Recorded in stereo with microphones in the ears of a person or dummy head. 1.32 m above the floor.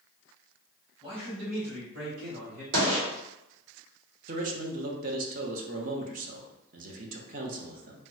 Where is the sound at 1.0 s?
30° right (ahead or behind), 1.2 m; by 2.6 s 55° right (ahead or behind), 2 m.